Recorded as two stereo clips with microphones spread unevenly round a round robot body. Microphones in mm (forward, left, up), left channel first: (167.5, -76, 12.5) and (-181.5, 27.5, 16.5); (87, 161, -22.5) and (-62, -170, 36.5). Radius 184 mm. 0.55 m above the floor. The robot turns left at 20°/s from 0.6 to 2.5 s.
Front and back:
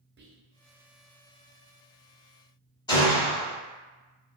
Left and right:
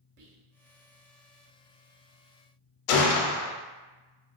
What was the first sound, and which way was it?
Whispering, 145° right.